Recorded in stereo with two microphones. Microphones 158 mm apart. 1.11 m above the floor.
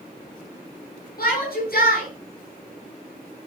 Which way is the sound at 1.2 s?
65° left (ahead or behind).